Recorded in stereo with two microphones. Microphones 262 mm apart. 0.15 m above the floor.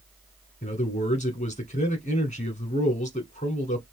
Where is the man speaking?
30° left (ahead or behind), 1.2 m.